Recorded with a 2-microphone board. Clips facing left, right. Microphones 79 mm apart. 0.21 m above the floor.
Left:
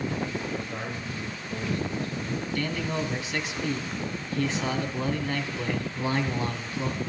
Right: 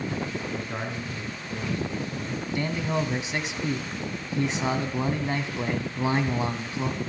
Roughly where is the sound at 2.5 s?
Right.